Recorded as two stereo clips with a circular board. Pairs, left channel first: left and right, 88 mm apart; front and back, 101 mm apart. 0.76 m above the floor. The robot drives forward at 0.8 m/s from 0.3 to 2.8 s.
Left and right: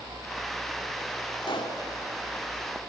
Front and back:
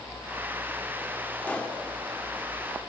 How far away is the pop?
About 1.9 m.